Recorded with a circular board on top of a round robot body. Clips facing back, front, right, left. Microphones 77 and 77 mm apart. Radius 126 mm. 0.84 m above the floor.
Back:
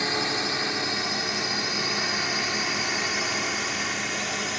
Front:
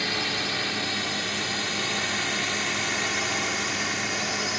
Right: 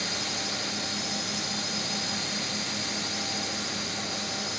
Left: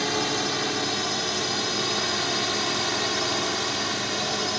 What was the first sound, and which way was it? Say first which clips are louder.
A drone: back 2 dB, left 8 dB; 110° left.